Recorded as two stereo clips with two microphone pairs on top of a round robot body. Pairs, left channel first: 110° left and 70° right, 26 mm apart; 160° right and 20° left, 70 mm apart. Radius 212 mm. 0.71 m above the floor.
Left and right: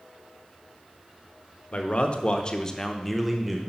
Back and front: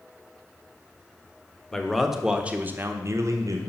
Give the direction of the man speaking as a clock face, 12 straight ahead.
8 o'clock.